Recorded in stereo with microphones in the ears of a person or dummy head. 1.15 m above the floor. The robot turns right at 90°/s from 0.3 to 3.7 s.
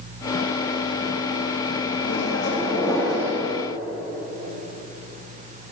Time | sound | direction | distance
2.0 | a microwave | 85° left | 2 m